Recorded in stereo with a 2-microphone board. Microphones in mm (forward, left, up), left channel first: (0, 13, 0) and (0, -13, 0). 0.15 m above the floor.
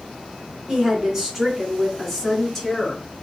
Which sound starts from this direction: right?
A woman speaking, at 0.7 s.